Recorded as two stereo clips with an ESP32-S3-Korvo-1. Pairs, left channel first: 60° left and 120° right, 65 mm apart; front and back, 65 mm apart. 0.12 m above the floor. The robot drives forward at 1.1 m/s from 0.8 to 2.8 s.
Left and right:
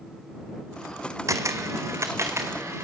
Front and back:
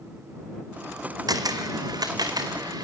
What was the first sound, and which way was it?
A camera shutter, 160° right.